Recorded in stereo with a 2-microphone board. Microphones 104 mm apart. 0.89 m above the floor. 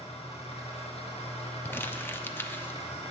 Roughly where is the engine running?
Left.